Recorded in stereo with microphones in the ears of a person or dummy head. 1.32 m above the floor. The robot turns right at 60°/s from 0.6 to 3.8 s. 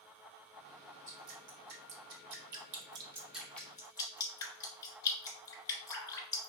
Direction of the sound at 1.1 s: 30° right (ahead or behind).